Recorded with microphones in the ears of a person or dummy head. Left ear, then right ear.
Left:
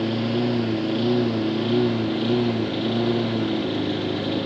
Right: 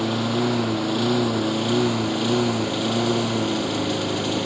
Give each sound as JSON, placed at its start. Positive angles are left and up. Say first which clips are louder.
{"t": 0.0, "sound": "a lawn mower", "louder": "right 1 dB", "side_deg": -55}